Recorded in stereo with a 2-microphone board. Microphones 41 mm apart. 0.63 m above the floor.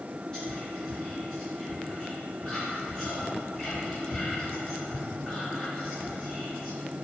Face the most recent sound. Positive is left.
turn(degrees=20)  # may be behind; listen again after turning